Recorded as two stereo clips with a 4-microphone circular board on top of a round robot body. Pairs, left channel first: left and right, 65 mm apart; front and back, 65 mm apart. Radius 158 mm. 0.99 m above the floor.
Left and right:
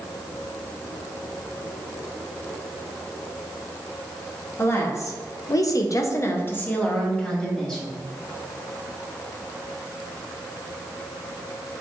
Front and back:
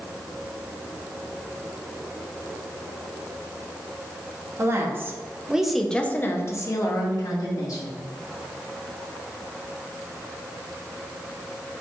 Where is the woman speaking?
135° left, 1.4 m; by 8.0 s 10° left, 2.0 m.